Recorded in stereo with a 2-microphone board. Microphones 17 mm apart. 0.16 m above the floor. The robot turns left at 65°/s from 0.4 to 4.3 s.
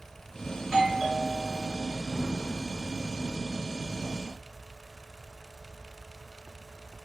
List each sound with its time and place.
0.6 s a doorbell: 15° right (ahead or behind), 1.6 m; by 2.0 s 15° left (ahead or behind), 1.6 m